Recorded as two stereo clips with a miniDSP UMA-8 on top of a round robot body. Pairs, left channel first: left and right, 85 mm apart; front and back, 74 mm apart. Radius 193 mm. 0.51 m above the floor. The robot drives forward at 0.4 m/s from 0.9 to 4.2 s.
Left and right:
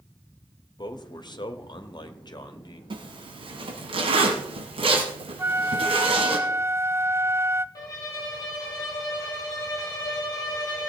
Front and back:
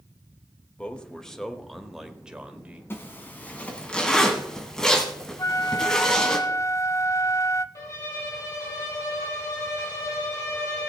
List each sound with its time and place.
0.8 s a man speaking: 75° left, 1.5 m; by 2.8 s 110° left, 1.5 m
2.9 s a zipper: 60° right, 1.5 m; by 6.4 s 85° right, 1.3 m
5.4 s a flute: 40° right, 0.7 m
7.8 s a violin: 45° left, 3 m